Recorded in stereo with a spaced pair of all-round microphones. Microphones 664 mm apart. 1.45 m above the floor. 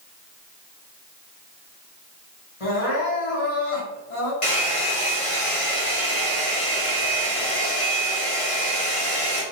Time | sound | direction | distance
2.6 | crying | 55° left (ahead or behind) | 1.9 m
4.4 | a hair dryer | 55° left (ahead or behind) | 1.2 m